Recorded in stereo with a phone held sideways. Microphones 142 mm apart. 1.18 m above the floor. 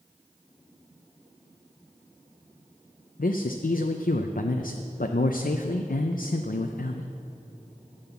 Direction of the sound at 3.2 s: 80° left.